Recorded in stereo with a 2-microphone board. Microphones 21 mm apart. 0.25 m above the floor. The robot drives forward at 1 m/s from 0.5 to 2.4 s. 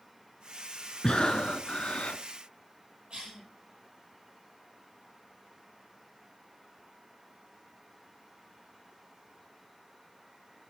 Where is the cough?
45° right (ahead or behind), 10 m.